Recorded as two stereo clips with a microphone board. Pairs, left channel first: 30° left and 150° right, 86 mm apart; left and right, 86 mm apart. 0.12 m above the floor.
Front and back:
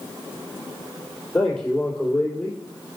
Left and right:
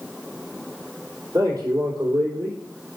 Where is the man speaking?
45° right, 3 m.